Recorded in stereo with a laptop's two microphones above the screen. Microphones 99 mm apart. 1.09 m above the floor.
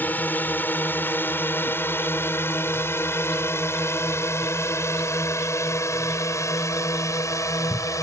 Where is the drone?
20° left (ahead or behind); by 8.0 s 35° left (ahead or behind).